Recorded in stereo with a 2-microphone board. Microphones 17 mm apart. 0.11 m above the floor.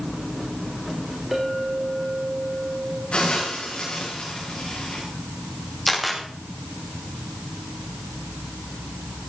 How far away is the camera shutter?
About 4.5 m.